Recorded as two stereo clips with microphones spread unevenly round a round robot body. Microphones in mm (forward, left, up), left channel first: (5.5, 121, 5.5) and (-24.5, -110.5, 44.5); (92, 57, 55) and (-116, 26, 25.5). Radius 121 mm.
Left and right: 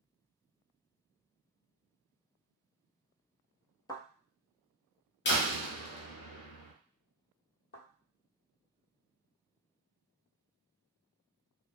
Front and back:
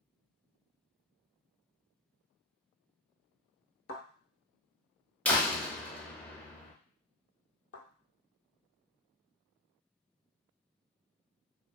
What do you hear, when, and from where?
3.9 s a thud: 5° left, 0.9 m
5.2 s a door slam: 95° left, 0.8 m
7.7 s a thud: 30° left, 1.2 m